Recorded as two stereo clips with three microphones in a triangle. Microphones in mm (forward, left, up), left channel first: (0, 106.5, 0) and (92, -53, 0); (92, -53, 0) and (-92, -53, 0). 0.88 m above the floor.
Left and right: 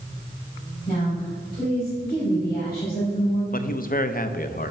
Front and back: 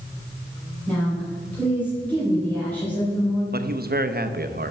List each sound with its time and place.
0.9 s a woman speaking: 80° left, 4 m
3.5 s a man speaking: 155° left, 0.6 m